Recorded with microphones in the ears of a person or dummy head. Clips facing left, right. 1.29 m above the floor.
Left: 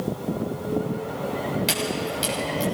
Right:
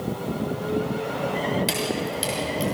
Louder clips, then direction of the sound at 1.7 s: Right 1 dB; 5° right (ahead or behind).